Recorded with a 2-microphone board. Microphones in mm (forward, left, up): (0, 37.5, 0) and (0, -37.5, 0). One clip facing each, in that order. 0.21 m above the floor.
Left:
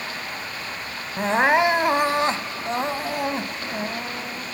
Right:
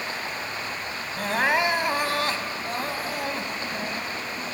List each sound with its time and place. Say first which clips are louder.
0.0 s running water: right 1 dB; 30° right (ahead or behind), 4.5 m
1.2 s crying: left 5 dB; 25° left (ahead or behind), 0.6 m